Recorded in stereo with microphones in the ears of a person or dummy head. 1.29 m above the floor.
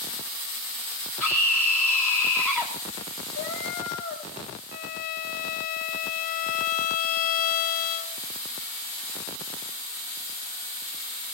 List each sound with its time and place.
1.2 s a scream: 5° left (ahead or behind), 1.5 m
3.3 s a cat meowing: 75° left (ahead or behind), 3 m
4.7 s a violin: 45° left (ahead or behind), 0.6 m